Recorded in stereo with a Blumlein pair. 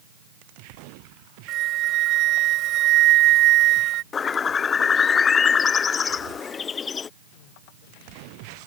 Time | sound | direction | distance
1.5 | a flute | 35° right | ?
4.1 | a bird | 20° left | ?